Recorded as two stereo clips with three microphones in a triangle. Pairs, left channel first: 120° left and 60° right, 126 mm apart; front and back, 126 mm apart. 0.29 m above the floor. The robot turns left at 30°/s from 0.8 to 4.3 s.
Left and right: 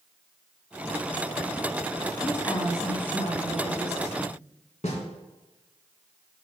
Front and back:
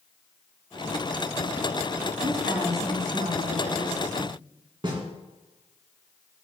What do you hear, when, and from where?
2.2 s a woman speaking: 170° right, 3 m; by 4.3 s 130° left, 3 m
4.8 s a snare drum: 130° left, 2.5 m